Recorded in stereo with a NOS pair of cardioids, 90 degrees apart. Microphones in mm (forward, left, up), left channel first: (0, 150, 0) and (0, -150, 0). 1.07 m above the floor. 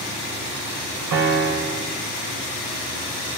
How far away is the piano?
About 6 m.